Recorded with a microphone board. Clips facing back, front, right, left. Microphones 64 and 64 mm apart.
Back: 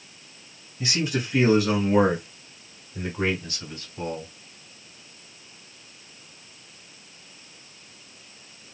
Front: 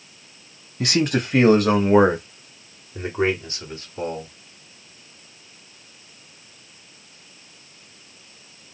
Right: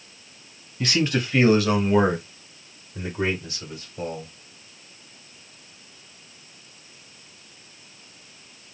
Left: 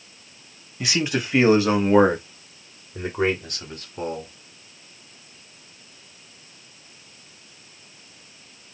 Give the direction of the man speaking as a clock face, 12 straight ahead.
12 o'clock.